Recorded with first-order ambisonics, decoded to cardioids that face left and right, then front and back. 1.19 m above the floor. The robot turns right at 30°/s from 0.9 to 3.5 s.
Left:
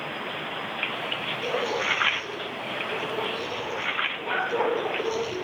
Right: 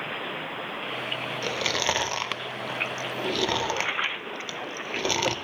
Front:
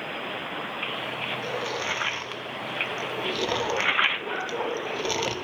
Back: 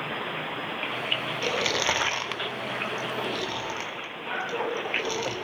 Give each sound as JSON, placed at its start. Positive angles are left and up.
{"t": 1.4, "sound": "chewing", "azimuth_deg": -135, "distance_m": 0.6}